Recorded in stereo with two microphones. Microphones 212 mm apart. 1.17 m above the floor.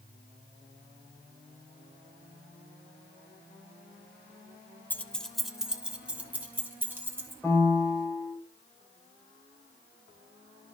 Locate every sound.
4.9 s keys jangling: 10° left (ahead or behind), 1.0 m; by 7.3 s 10° right (ahead or behind), 3.5 m
7.4 s a piano: 10° left (ahead or behind), 4 m